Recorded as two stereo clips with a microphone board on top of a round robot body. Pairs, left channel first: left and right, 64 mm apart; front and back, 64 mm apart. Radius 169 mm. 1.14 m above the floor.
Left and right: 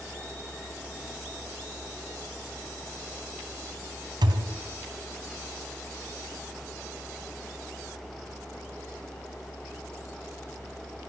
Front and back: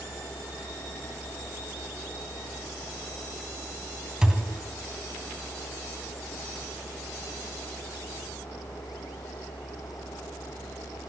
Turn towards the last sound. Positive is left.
turn(degrees=-100)